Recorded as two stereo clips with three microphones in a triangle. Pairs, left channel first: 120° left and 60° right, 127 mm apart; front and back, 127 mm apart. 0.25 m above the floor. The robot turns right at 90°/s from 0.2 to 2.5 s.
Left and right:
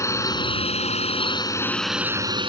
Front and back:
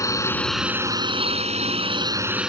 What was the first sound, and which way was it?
A drone, 60° left.